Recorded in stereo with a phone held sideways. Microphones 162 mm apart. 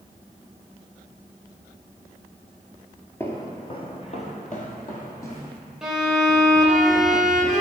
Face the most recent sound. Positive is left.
turn(degrees=-5)  # may be behind; listen again after turning